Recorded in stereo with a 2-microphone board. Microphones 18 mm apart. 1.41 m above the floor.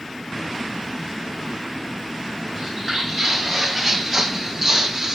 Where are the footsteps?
10° left (ahead or behind), 5 m; by 5.2 s 15° right (ahead or behind), 3.5 m.